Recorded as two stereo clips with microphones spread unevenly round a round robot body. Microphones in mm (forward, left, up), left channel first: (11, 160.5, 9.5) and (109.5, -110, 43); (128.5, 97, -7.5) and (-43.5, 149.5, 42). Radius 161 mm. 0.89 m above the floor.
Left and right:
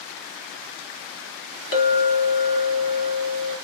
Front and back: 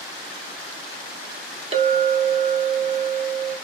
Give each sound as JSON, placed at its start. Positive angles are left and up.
{"t": 1.7, "sound": "a clink", "azimuth_deg": 105, "distance_m": 0.9}